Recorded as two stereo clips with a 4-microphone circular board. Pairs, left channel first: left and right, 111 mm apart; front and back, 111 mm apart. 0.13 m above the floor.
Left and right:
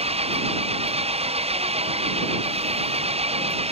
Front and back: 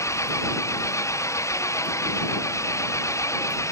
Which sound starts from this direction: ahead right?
An engine running, at 0.0 s.